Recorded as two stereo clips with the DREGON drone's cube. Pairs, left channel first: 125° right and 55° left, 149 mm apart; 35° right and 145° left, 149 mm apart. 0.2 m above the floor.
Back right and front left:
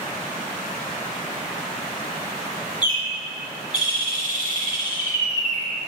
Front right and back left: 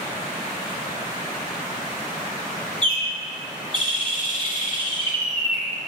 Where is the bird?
175° right, 2 m.